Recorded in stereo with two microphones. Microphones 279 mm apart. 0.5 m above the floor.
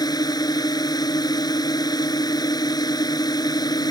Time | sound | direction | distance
0.0 | a drone | 15° left (ahead or behind) | ?